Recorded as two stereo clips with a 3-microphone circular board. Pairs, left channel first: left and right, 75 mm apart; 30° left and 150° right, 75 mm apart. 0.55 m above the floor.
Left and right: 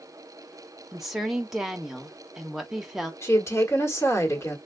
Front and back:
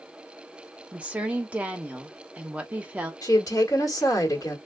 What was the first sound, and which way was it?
A woman speaking, 170° right.